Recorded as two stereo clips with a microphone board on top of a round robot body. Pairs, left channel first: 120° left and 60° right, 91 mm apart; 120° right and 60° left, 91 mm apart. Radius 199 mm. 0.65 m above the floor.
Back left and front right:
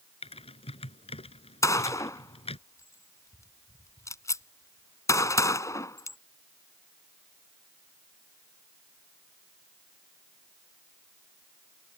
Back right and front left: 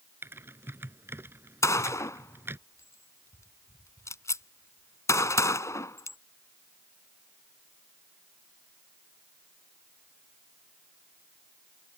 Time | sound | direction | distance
0.2 | typing on a keyboard | 125° left | ?
1.6 | a gunshot | straight behind | ?